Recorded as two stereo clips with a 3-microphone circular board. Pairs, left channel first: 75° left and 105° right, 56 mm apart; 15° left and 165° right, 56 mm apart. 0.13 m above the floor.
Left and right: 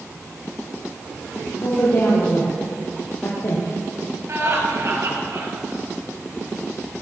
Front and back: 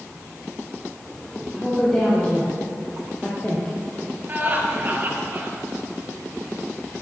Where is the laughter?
120° right, 3 m.